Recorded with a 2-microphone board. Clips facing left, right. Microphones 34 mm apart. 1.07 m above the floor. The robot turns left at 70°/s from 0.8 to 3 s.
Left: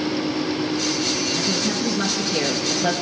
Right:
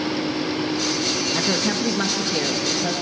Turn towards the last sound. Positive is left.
turn(degrees=130)